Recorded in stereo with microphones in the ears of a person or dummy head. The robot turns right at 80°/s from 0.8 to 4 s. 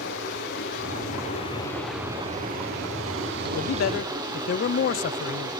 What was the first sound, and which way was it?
Running water, 85° left.